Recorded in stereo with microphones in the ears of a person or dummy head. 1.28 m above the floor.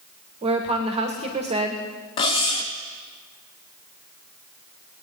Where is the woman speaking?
30° right (ahead or behind), 1.9 m.